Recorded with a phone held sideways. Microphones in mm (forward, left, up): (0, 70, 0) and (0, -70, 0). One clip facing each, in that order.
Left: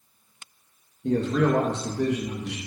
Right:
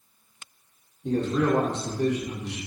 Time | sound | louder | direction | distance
1.0 | a man speaking | left 1 dB | 75° left (ahead or behind) | 0.9 m